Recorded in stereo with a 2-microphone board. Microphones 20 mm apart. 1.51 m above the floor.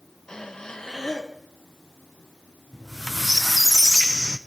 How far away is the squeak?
About 0.6 m.